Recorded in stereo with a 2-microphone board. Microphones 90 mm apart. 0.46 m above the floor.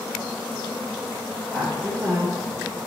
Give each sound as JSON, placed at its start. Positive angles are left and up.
{"t": 1.5, "sound": "a woman speaking", "side_deg": 10, "distance_m": 1.6}